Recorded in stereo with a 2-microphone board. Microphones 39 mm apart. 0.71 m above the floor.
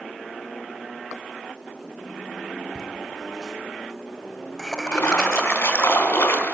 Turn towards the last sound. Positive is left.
turn(degrees=80)